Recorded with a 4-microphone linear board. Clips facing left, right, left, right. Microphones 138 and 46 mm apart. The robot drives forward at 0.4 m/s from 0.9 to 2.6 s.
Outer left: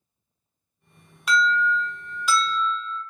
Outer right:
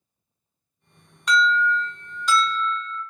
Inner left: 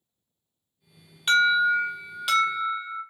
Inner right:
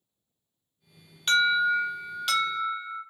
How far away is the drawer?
I don't hear a drawer.